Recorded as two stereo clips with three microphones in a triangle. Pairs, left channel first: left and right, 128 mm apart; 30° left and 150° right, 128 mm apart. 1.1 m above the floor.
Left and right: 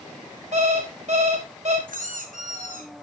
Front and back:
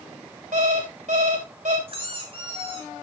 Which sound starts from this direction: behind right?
An alarm clock, at 0.5 s.